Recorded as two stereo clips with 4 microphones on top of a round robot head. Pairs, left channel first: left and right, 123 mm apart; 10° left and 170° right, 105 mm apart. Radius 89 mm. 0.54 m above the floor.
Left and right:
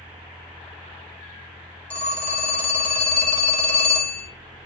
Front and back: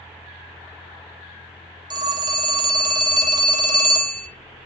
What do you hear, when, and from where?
1.9 s a phone ringing: 165° left, 0.5 m